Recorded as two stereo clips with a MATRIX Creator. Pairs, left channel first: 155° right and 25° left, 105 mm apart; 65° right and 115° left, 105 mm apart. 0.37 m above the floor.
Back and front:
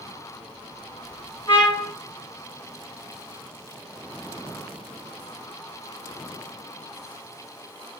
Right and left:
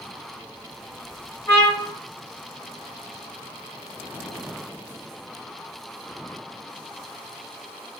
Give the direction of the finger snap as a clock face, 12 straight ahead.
No finger snap in this recording.